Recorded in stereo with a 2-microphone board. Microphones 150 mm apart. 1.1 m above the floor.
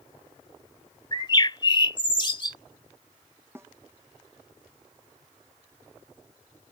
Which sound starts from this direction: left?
A bird, at 1.1 s.